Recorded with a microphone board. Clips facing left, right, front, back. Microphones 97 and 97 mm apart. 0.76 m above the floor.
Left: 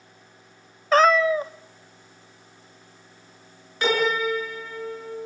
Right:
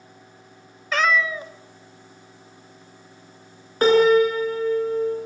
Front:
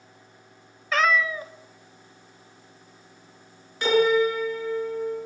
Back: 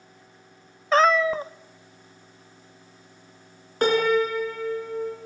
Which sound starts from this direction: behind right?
A piano, at 3.8 s.